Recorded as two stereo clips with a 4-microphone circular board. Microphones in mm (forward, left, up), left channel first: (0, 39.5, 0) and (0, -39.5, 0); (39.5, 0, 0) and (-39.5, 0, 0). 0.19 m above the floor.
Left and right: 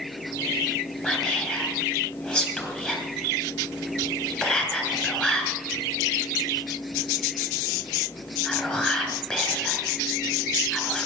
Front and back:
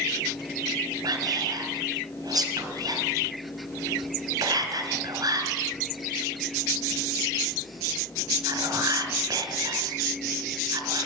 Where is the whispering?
165° left, 2.5 m.